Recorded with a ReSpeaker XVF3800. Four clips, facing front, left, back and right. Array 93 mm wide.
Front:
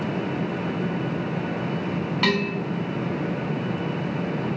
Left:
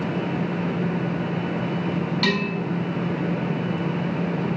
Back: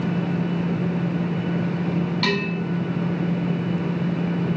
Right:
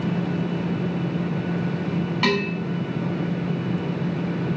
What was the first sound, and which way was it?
Dishes clattering, 50° right.